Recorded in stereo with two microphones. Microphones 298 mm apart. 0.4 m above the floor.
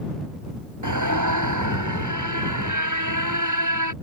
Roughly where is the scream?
Right.